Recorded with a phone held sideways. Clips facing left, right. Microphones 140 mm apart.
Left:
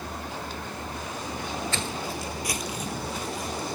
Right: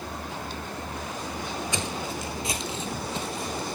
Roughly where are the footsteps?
Centre.